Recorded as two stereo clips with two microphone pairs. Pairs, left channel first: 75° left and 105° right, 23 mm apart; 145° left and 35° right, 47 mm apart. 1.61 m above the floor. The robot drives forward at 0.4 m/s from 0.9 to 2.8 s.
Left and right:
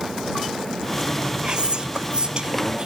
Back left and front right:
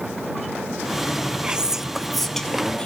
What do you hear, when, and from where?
1.4 s whispering: 90° right, 0.6 m; by 2.9 s 145° right, 0.8 m